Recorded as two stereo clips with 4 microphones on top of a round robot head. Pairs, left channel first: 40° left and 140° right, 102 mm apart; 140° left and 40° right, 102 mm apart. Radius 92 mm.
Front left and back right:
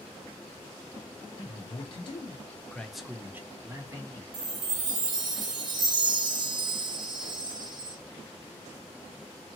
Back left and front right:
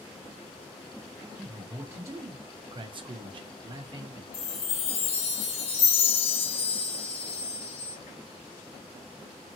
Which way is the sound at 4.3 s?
170° left.